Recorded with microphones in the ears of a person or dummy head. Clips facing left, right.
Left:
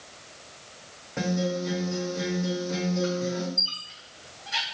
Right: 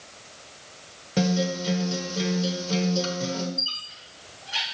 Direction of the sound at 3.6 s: 60° left (ahead or behind).